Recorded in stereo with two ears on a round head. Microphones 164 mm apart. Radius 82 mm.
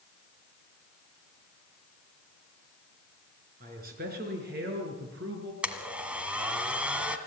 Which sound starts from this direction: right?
A man speaking, at 3.6 s.